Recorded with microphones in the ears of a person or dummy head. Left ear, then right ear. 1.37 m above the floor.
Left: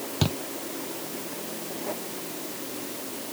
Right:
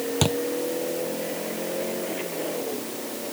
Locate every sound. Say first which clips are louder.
0.2 s a thud: right 4 dB; 20° right (ahead or behind)